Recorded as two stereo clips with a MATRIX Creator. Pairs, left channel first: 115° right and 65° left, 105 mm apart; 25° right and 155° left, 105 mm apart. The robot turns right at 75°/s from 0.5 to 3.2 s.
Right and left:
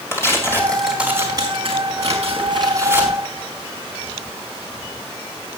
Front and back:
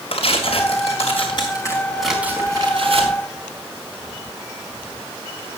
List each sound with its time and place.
0.1 s tearing paper: 50° right, 4.5 m; by 3.2 s 150° left, 4.5 m